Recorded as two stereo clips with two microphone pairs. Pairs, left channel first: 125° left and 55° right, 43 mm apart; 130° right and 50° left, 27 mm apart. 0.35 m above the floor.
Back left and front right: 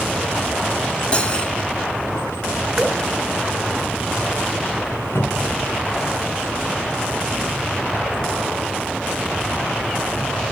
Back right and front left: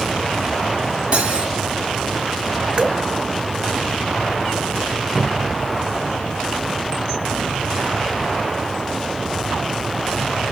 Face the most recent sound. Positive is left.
turn(degrees=130)